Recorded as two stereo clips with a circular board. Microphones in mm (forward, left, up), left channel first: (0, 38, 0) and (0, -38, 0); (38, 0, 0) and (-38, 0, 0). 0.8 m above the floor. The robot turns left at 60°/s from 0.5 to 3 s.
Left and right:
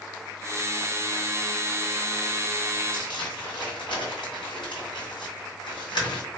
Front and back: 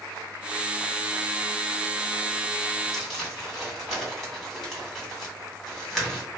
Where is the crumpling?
90° left, 1.9 m.